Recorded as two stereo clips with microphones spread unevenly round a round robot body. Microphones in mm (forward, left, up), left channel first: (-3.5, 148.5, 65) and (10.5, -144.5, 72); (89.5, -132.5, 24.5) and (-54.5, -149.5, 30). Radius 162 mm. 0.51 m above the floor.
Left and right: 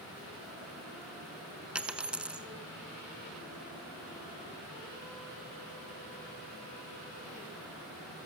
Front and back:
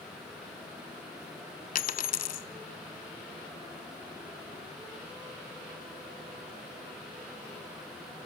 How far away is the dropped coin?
About 0.7 m.